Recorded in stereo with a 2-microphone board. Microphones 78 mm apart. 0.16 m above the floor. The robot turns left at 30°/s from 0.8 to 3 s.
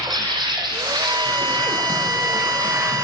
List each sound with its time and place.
0.0 s an insect: 75° right, 2.0 m; by 3.1 s 145° right, 2.0 m
1.0 s a violin: 70° right, 0.9 m; by 3.1 s 130° right, 0.9 m